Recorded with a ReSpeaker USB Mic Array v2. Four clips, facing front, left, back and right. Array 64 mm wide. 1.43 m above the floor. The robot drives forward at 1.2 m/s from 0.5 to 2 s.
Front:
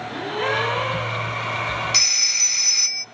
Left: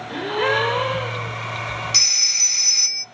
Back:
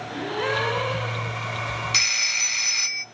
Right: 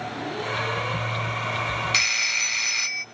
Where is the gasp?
80° left, 6.5 m; by 1.4 s 90° left, 6.5 m.